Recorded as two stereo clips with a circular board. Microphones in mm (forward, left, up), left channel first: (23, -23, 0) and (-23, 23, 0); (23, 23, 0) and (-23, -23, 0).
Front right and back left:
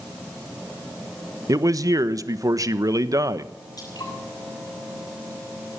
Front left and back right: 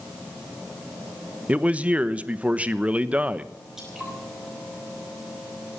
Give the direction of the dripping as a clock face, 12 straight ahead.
2 o'clock.